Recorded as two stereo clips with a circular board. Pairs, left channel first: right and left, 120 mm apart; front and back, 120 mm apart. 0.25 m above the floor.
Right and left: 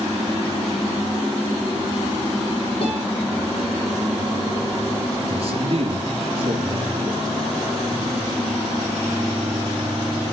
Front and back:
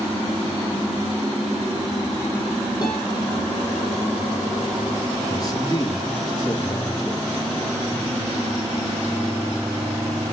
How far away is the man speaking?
About 4 m.